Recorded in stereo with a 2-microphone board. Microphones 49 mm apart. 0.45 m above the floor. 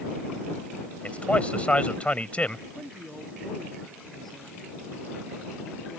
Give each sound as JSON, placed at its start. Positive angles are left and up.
{"t": 1.0, "sound": "a man speaking", "side_deg": 25}
{"t": 2.7, "sound": "a woman speaking", "side_deg": 5}